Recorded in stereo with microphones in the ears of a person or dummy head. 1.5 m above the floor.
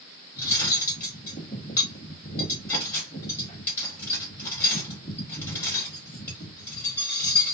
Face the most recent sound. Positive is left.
turn(degrees=15)  # may be behind; listen again after turning